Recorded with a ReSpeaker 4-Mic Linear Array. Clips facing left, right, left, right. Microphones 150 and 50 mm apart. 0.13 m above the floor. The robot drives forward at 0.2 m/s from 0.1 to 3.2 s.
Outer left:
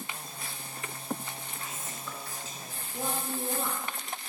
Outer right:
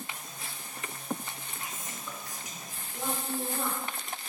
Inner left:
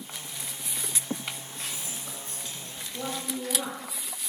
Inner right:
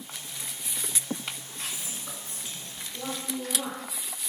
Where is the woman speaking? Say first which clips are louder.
Even, inner left 1 dB; 25° left (ahead or behind), 2.5 m.